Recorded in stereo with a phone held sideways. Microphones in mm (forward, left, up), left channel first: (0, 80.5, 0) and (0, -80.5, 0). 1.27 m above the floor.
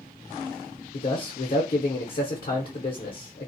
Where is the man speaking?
60° left (ahead or behind), 0.6 m.